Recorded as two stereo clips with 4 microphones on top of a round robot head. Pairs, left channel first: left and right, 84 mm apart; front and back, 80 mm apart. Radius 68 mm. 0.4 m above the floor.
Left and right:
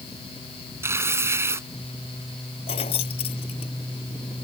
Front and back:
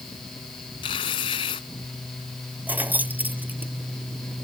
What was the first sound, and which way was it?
Tearing paper, 30° right.